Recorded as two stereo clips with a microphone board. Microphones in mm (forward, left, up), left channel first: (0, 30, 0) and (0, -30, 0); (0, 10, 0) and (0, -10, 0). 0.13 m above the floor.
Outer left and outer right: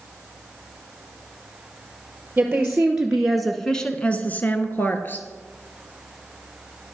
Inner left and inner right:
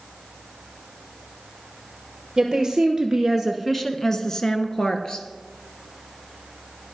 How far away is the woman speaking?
About 2 m.